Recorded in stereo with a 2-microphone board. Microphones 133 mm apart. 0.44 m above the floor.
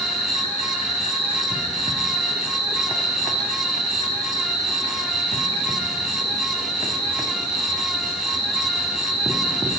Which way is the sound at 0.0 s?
45° left (ahead or behind).